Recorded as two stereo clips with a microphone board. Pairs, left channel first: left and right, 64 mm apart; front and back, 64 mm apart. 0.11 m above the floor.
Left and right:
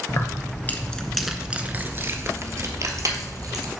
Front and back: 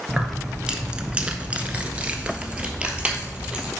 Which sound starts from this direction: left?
Keys jangling, at 0.1 s.